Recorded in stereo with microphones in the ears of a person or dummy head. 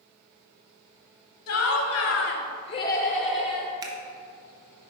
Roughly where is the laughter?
Left.